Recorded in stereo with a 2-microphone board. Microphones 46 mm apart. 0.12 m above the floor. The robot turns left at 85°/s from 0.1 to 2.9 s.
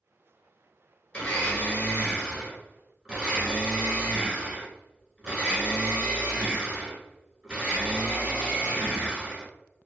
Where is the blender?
125° left, 1.2 m; by 9.4 s 20° right, 1.2 m.